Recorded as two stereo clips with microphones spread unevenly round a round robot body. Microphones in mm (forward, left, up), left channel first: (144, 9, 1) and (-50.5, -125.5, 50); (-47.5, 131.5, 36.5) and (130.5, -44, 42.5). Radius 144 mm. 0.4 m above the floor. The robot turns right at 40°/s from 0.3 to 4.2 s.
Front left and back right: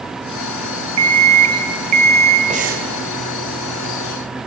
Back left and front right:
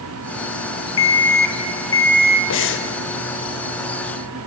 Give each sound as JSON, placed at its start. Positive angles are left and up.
{"t": 1.0, "sound": "an alarm clock", "azimuth_deg": 175, "distance_m": 2.0}
{"t": 2.5, "sound": "breathing", "azimuth_deg": 145, "distance_m": 1.9}